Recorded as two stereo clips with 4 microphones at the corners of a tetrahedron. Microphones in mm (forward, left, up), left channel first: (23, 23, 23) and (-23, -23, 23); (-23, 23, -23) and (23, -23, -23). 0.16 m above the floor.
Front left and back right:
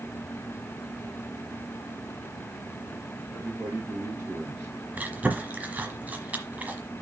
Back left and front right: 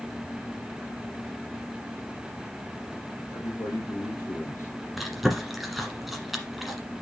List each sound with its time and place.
3.3 s a man speaking: 175° right, 3 m
5.0 s chewing: 130° right, 1.3 m